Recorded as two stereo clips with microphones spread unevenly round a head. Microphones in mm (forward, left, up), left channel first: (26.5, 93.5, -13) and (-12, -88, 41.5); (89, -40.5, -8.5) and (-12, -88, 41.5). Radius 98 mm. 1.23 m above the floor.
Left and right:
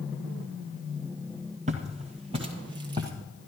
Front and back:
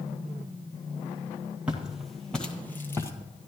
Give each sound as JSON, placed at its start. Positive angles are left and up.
{"t": 1.7, "sound": "footsteps", "azimuth_deg": -105, "distance_m": 1.7}